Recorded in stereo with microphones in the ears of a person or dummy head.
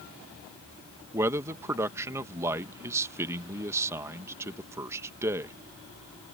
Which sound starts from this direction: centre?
A man speaking, at 1.1 s.